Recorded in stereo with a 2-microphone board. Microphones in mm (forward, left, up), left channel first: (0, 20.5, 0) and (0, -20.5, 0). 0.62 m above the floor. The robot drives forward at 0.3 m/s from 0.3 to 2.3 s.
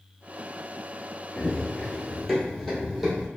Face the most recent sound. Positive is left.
turn(degrees=-5)  # may be behind; listen again after turning